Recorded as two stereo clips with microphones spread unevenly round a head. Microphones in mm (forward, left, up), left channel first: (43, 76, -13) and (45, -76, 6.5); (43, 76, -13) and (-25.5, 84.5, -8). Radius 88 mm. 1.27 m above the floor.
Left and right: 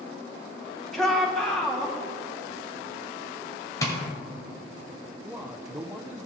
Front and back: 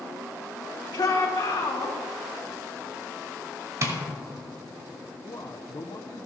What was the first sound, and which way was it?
A shout, 5° left.